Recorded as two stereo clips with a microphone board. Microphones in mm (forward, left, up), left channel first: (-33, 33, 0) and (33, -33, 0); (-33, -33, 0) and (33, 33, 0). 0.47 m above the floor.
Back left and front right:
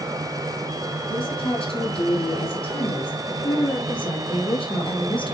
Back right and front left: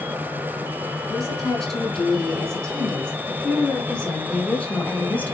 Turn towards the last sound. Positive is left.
turn(degrees=155)